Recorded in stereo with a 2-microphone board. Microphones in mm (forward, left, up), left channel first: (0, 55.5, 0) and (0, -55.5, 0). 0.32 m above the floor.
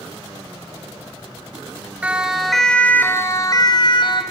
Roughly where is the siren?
Centre.